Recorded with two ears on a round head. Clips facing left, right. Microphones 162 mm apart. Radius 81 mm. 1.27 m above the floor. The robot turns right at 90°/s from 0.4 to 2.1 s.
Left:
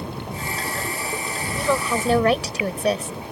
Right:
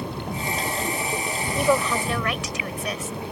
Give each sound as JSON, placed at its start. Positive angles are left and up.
{"t": 1.6, "sound": "a woman speaking", "azimuth_deg": -20}